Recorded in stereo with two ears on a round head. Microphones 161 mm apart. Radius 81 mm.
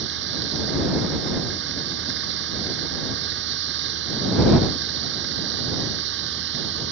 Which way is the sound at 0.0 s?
70° right (ahead or behind).